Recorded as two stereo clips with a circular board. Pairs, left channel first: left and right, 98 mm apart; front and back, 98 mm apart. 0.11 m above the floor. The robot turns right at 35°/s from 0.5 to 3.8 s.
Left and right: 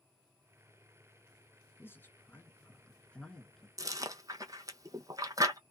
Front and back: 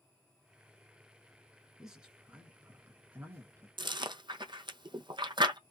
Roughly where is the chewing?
Behind right.